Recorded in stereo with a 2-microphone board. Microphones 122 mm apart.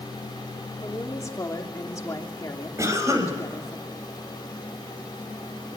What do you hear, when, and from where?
0.8 s a woman speaking: 25° left (ahead or behind), 2.5 m
2.8 s a cough: 25° right (ahead or behind), 5 m